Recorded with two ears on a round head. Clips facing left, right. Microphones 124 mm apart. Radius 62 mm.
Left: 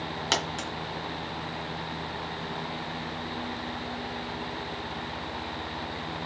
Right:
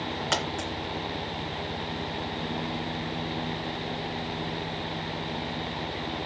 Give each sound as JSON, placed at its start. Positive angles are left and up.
{"t": 0.3, "sound": "a dropped coin", "side_deg": 40, "distance_m": 2.5}